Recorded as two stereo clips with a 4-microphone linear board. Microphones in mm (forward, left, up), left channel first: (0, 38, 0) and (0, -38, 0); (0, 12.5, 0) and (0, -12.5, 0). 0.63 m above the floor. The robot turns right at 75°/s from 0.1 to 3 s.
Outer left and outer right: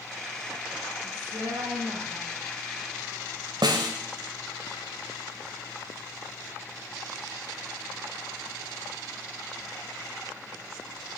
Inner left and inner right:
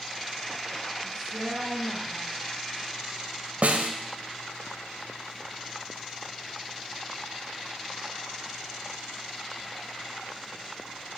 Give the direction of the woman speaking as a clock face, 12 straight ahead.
4 o'clock.